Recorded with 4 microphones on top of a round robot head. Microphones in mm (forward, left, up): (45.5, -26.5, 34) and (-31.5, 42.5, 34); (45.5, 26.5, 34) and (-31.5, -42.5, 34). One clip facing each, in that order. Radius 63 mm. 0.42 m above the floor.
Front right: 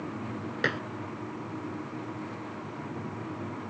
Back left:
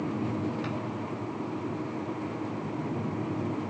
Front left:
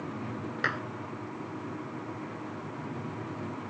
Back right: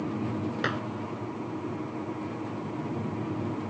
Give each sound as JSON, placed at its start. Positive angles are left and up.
{"t": 0.6, "sound": "dishes clattering", "azimuth_deg": -60}